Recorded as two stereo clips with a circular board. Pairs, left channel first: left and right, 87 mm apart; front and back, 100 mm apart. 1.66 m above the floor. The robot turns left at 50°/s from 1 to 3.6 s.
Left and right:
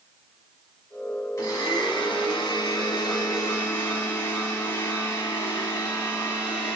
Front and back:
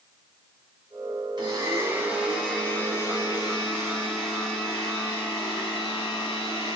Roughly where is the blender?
Behind left.